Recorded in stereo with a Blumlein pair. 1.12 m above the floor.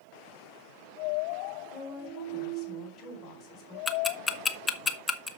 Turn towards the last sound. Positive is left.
turn(degrees=15)